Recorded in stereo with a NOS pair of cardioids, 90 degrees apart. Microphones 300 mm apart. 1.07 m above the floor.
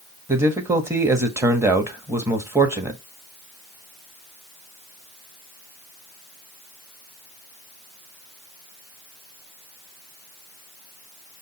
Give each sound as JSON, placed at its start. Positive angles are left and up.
{"t": 0.3, "sound": "a man speaking", "azimuth_deg": -10, "distance_m": 1.4}